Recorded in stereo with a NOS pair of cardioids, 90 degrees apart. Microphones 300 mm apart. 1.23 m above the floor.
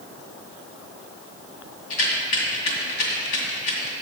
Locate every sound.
1.9 s a rattle: 65° left, 2 m